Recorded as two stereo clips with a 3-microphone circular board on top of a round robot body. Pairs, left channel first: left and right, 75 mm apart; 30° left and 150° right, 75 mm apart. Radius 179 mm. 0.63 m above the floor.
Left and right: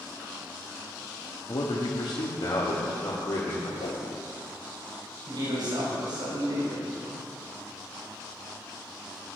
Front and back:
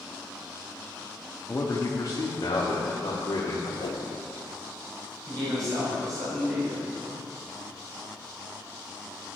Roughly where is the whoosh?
Ahead left.